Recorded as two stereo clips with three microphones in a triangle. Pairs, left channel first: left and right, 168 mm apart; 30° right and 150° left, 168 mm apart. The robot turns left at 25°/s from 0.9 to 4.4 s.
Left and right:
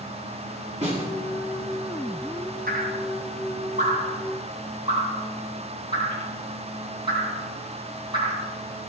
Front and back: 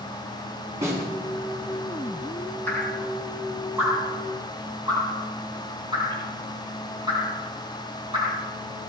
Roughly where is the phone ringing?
No phone ringing in this recording.